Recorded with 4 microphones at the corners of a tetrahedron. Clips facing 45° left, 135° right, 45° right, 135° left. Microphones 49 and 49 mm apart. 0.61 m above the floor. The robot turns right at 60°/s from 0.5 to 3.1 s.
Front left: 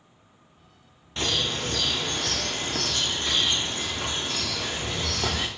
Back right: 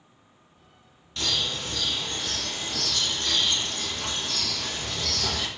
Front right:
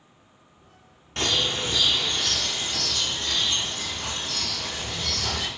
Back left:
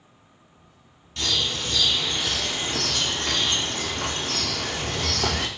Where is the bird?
10° right, 0.5 m; by 5.5 s 105° left, 0.5 m.